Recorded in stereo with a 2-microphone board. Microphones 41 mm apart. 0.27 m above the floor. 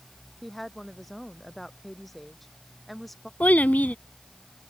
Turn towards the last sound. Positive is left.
turn(degrees=40)  # may be behind; listen again after turning